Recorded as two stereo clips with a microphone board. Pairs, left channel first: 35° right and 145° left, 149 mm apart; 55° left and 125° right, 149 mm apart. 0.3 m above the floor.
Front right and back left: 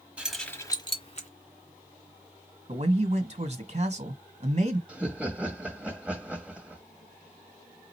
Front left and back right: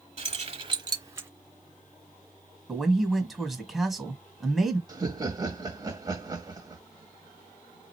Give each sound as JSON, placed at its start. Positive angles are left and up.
{"t": 0.2, "sound": "keys jangling", "azimuth_deg": -135, "distance_m": 1.2}
{"t": 2.7, "sound": "a man speaking", "azimuth_deg": 145, "distance_m": 1.4}
{"t": 4.9, "sound": "laughter", "azimuth_deg": -145, "distance_m": 0.9}